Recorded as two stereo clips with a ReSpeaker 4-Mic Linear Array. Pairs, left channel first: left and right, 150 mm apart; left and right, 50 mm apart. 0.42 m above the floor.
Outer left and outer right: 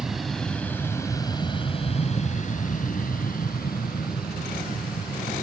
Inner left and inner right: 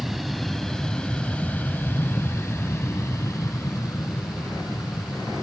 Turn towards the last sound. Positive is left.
turn(degrees=75)  # may be behind; listen again after turning